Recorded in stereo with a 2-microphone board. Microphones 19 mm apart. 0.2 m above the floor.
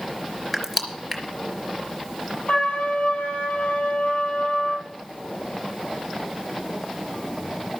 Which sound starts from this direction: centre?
Crushing, at 0.5 s.